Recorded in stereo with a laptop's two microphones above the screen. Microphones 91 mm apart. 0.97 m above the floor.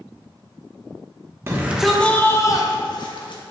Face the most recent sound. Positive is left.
turn(degrees=60)  # may be behind; listen again after turning